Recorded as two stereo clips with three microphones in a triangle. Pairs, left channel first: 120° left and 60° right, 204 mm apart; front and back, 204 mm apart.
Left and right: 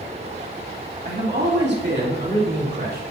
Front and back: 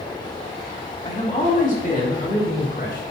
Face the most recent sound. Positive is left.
turn(degrees=-35)